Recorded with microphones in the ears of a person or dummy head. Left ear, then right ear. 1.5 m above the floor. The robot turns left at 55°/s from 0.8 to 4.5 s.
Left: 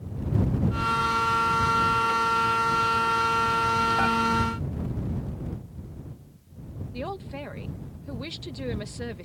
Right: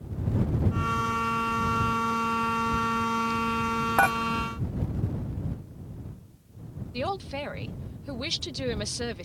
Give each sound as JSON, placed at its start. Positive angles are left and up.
{"t": 4.0, "sound": "dishes clattering", "side_deg": -45}
{"t": 6.9, "sound": "a man speaking", "side_deg": -30}